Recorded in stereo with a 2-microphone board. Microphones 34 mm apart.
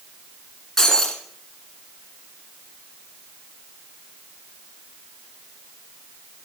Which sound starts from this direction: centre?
Breaking glass, at 0.8 s.